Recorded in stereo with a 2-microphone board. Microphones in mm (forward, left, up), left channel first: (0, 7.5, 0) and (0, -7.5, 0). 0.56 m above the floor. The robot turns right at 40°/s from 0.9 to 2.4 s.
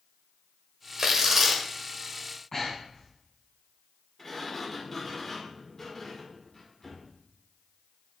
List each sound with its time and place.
1.0 s tearing paper: 40° right (ahead or behind), 1.5 m; by 1.6 s 15° right (ahead or behind), 1.5 m
2.5 s breathing: 30° left (ahead or behind), 3 m
4.2 s a sliding door: 25° left (ahead or behind), 1.9 m